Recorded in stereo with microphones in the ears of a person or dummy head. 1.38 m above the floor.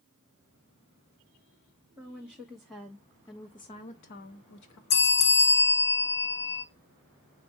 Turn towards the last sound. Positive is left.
turn(degrees=50)  # may be behind; listen again after turning